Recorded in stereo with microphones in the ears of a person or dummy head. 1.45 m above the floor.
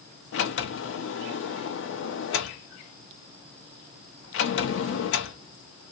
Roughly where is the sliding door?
Left.